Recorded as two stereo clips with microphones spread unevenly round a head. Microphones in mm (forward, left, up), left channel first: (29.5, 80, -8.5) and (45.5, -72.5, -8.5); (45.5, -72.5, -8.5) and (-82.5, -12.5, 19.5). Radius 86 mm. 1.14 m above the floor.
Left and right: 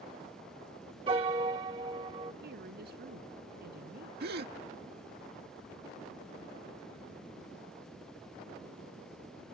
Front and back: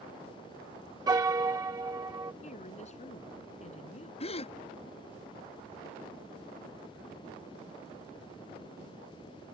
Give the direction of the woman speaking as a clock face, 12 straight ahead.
2 o'clock.